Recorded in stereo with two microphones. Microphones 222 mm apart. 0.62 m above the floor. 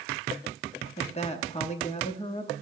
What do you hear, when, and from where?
1.0 s a woman speaking: 30° left (ahead or behind), 0.8 m